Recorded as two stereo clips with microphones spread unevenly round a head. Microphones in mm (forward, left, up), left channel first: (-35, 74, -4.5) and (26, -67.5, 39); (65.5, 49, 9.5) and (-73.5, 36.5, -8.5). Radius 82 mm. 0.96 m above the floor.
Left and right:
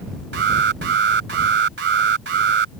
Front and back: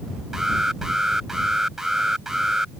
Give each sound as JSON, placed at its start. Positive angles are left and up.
{"t": 0.3, "sound": "an alarm", "azimuth_deg": -85}